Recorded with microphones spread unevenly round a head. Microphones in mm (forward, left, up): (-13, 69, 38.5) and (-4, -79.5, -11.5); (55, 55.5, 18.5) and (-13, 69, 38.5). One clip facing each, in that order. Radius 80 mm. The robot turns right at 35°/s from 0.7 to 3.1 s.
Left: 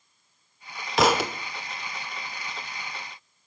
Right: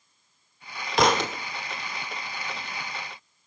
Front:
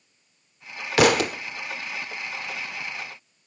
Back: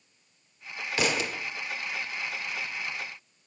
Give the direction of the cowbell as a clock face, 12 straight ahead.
No cowbell in this recording.